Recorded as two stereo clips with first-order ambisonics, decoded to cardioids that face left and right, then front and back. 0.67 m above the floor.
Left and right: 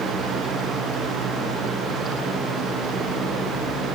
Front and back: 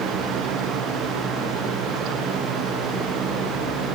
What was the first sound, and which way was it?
Only background noise.